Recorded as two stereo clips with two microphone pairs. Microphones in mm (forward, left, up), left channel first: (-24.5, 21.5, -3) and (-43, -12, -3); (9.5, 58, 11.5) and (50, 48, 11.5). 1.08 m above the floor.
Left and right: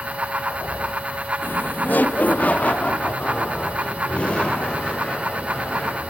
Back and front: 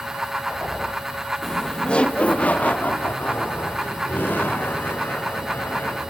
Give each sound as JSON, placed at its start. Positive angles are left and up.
{"t": 1.4, "sound": "laughter", "azimuth_deg": 80, "distance_m": 1.3}